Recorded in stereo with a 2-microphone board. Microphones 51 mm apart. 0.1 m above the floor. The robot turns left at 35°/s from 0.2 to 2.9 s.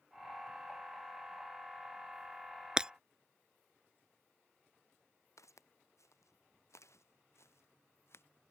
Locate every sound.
2.8 s breaking glass: 15° right (ahead or behind); by 2.9 s 20° right (ahead or behind)
5.4 s footsteps: 85° left; by 8.2 s 55° left (ahead or behind)